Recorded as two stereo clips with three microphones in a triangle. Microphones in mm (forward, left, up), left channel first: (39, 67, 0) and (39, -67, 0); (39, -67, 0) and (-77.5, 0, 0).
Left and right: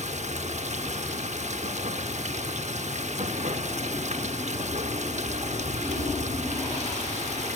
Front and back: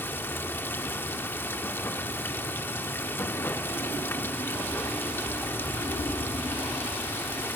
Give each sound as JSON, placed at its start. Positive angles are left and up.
{"t": 0.0, "sound": "running water", "azimuth_deg": -105, "distance_m": 0.8}